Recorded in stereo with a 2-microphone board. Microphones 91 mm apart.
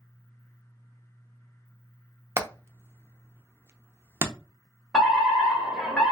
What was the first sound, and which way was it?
Hammering, 25° right (ahead or behind).